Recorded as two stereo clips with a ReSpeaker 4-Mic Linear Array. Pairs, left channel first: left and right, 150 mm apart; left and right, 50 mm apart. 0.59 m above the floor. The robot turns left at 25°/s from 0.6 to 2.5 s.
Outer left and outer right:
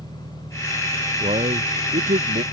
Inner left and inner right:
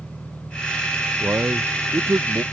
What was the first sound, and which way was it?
An engine running, 50° right.